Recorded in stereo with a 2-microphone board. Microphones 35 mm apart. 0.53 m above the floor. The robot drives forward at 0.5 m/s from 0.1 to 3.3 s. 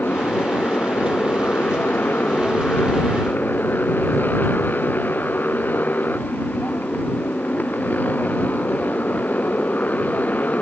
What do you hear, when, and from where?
0.0 s a motorcycle: 70° left (ahead or behind); by 10.6 s 50° left (ahead or behind)